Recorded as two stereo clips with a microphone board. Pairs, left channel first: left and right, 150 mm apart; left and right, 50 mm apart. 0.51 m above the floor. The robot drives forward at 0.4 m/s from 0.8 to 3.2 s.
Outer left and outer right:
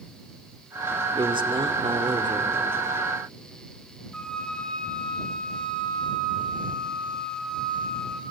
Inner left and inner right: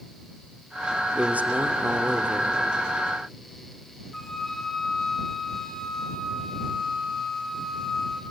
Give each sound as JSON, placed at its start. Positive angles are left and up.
{"t": 1.1, "sound": "a man speaking", "side_deg": -35, "distance_m": 1.4}
{"t": 4.1, "sound": "a flute", "side_deg": 5, "distance_m": 3.0}